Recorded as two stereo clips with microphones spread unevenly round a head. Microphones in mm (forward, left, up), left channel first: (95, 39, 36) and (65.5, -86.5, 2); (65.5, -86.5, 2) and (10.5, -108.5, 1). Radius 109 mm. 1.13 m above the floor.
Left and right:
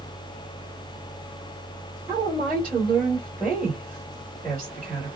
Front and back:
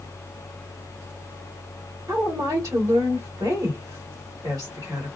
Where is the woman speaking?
175° left, 1.6 m.